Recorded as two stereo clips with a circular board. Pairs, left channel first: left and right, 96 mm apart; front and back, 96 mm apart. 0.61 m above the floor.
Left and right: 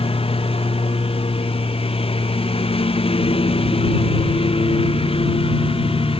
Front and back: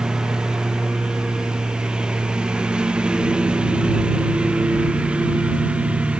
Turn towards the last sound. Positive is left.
turn(degrees=100)